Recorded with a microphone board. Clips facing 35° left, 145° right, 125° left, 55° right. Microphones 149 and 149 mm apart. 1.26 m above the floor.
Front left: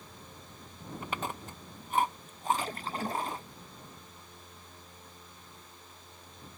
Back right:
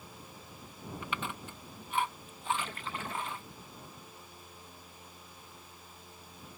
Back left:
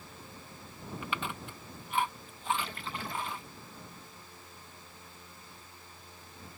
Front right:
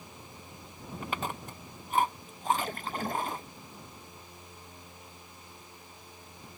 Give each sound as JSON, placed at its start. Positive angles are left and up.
{"t": 1.0, "sound": "chewing", "azimuth_deg": -10}
{"t": 2.6, "sound": "a splash", "azimuth_deg": -15}